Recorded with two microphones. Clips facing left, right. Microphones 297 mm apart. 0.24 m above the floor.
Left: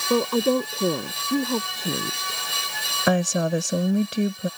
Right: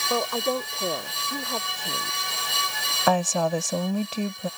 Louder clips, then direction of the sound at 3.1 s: Left 2 dB; 20° left (ahead or behind).